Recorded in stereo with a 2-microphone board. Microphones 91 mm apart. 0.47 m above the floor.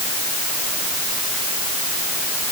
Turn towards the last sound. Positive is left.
No sound to turn to.